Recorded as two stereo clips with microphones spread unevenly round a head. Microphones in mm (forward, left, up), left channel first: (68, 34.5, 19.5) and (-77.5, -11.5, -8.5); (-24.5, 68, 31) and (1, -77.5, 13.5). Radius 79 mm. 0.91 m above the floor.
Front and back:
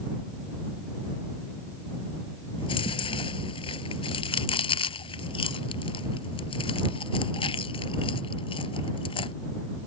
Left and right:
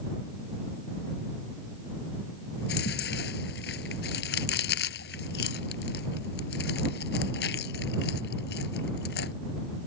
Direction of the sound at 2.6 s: 75° left.